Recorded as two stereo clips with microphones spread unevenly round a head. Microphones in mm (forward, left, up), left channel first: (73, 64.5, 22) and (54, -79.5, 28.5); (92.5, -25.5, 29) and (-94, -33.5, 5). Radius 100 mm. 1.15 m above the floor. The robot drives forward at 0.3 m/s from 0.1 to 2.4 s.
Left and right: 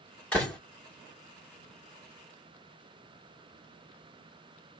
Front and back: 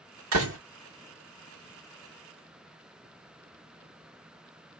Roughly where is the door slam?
Behind.